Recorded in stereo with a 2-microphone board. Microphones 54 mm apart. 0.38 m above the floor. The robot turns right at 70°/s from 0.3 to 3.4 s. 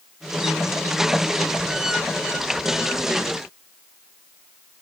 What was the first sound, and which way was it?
Only background noise.